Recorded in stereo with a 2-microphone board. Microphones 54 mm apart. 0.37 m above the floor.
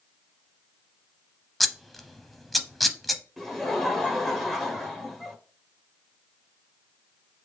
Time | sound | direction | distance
1.6 | scissors | centre (ahead or behind) | 0.6 m
3.4 | laughter | 5° left (ahead or behind) | 1.2 m